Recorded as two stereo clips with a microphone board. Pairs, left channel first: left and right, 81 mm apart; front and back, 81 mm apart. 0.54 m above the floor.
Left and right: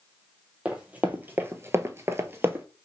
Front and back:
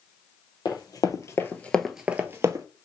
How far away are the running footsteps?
About 1.0 m.